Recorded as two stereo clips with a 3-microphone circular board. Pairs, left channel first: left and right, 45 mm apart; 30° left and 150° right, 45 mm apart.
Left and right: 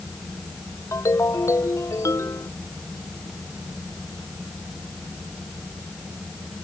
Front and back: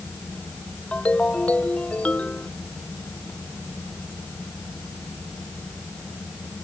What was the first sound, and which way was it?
A ringtone, 90° left.